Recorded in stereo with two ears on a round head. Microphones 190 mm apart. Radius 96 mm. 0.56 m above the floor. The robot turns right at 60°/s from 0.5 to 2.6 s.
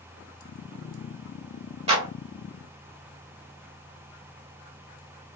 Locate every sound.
1.9 s a clap: 30° right (ahead or behind), 1.6 m; by 2.1 s 20° right (ahead or behind), 1.6 m